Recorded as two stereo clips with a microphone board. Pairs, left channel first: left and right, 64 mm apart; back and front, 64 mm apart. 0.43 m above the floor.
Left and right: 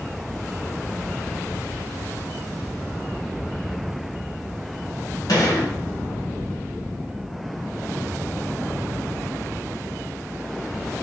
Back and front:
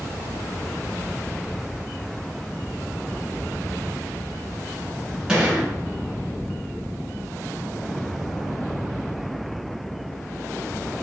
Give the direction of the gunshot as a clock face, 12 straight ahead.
9 o'clock.